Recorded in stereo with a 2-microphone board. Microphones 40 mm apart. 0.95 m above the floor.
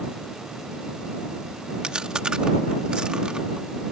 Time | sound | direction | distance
1.8 | chewing | 20° right (ahead or behind) | ?